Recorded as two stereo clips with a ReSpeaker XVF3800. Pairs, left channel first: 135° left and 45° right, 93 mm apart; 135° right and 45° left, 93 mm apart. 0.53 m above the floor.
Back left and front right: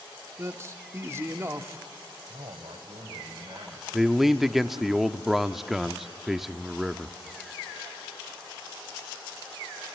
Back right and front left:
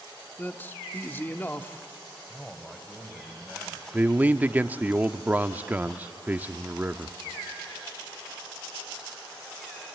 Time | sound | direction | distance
0.4 | a man speaking | 80° right | 1.0 m
2.3 | a man speaking | 55° right | 3.5 m
3.9 | a man speaking | 35° left | 0.6 m